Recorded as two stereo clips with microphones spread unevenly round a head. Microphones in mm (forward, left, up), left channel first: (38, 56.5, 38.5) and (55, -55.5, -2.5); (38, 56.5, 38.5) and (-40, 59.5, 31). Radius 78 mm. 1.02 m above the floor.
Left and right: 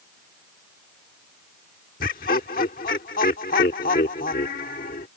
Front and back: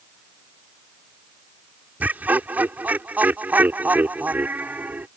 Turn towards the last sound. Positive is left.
turn(degrees=110)